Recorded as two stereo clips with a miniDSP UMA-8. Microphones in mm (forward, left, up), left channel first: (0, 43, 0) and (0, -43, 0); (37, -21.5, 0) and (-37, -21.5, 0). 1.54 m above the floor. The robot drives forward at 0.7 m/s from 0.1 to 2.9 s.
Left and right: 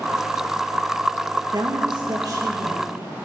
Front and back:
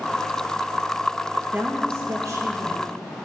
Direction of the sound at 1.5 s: 120° right.